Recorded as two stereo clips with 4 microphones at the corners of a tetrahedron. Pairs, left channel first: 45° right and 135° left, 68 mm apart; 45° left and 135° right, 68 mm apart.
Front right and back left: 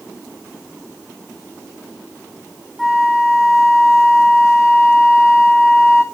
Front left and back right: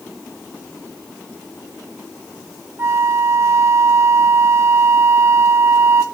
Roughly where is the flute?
Behind right.